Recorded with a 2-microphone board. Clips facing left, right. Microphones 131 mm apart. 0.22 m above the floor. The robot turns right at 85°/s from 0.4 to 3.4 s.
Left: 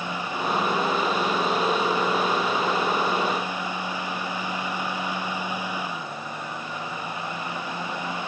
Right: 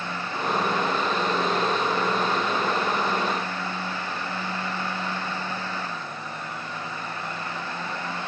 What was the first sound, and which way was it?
Only background noise.